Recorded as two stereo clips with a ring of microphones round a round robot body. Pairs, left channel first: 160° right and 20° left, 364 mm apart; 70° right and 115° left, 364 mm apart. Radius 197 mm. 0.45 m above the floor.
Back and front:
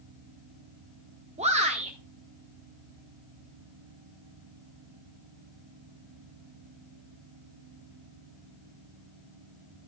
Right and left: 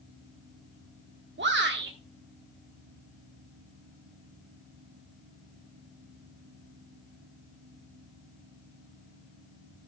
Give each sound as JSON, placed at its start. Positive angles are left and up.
{"t": 1.4, "sound": "a shout", "azimuth_deg": 80, "distance_m": 1.5}